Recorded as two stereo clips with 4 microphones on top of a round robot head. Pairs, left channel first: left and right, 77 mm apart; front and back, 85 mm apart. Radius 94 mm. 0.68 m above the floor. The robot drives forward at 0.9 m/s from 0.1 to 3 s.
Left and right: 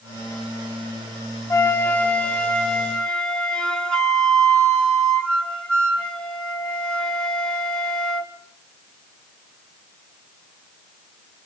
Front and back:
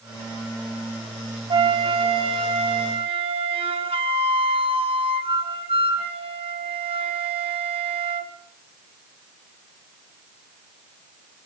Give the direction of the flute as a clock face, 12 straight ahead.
7 o'clock.